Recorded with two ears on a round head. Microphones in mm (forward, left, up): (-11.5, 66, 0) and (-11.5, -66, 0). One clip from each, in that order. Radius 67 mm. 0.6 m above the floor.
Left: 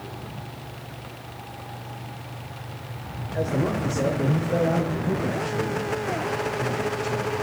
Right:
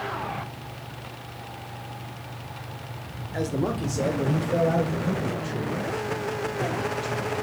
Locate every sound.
3.3 s a man speaking: 65° right (ahead or behind), 1.5 m; by 7.4 s 35° right (ahead or behind), 3.5 m